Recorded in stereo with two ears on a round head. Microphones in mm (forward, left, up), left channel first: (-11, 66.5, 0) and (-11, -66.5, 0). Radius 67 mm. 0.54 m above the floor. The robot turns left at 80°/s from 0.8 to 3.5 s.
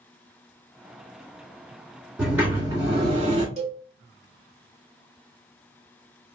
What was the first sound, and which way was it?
A sliding door, 5° right.